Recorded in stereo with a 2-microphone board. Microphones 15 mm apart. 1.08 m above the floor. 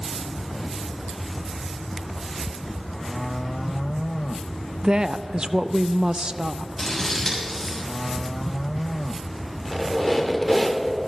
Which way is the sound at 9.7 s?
30° left (ahead or behind).